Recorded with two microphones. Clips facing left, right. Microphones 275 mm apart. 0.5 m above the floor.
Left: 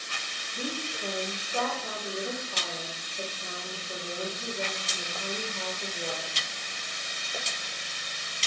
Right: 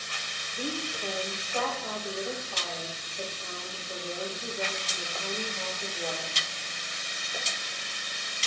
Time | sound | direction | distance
0.5 | a woman speaking | 25° left (ahead or behind) | 3 m